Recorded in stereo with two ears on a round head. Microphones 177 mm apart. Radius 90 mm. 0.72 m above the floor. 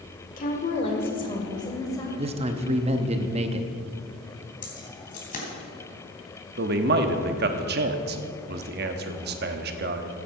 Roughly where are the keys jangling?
Left.